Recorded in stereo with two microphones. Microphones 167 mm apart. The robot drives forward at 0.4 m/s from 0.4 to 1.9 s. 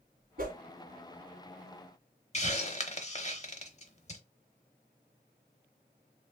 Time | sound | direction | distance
0.4 | a whoosh | 60° right (ahead or behind) | 1.3 m
2.3 | a hiss | 40° left (ahead or behind) | 0.8 m